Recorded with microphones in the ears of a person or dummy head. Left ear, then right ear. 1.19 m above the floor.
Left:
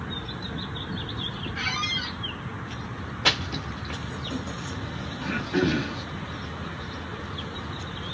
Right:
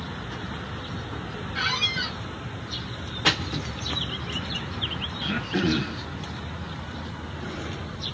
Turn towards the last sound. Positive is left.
turn(degrees=0)  # may be behind; listen again after turning